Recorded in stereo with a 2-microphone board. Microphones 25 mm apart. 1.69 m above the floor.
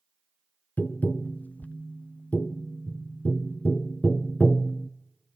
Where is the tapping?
75° left (ahead or behind), 0.6 m.